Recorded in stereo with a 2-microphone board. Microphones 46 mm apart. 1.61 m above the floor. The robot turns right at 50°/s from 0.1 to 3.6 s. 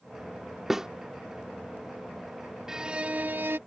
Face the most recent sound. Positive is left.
turn(degrees=-125)